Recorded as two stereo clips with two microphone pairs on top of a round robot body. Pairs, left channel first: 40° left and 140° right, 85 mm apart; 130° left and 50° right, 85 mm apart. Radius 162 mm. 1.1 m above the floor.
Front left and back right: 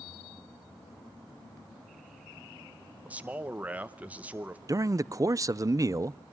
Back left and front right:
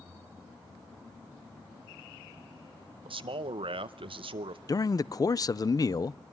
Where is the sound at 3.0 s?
65° right, 0.9 m.